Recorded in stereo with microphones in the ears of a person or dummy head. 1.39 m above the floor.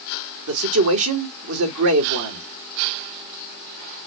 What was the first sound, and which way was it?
A man speaking, 75° right (ahead or behind).